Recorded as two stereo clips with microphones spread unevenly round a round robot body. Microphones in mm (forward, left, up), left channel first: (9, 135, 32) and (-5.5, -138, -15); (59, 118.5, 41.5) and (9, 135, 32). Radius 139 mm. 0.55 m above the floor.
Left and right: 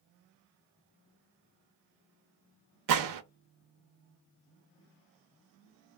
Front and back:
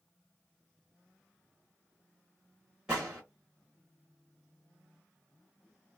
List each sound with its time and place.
2.9 s a gunshot: 115° right, 0.6 m